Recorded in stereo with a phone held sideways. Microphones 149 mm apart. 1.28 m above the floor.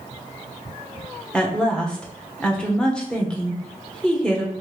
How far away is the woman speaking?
About 0.9 m.